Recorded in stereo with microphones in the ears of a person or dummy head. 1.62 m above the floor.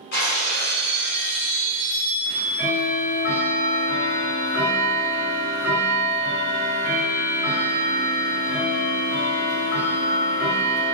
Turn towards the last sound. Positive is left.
turn(degrees=50)  # may be behind; listen again after turning